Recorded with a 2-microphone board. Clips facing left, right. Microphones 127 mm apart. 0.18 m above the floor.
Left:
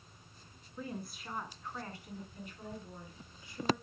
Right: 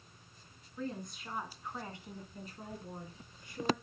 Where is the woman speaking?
10° left (ahead or behind), 2 m; by 3.8 s 60° right (ahead or behind), 2.5 m.